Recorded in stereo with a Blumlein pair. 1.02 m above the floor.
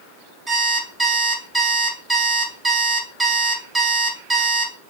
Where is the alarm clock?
15° right, 0.8 m.